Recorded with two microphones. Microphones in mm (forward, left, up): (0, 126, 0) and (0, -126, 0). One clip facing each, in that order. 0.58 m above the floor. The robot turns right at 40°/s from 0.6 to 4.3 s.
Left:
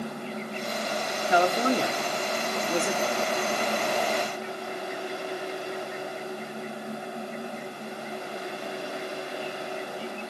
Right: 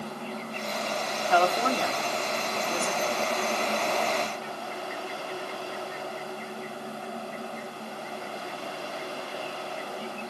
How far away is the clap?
I don't hear a clap.